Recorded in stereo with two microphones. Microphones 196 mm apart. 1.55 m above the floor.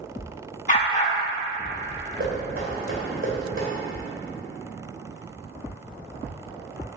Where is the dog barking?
35° left (ahead or behind), 1.6 m.